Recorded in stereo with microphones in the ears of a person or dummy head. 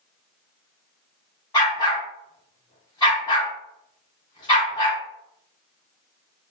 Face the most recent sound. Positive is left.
turn(degrees=25)  # may be behind; listen again after turning